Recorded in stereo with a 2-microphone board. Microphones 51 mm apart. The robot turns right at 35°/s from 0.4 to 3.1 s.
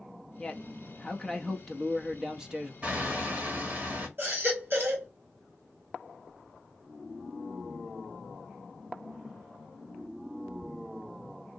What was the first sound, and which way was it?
A man speaking, 20° left (ahead or behind).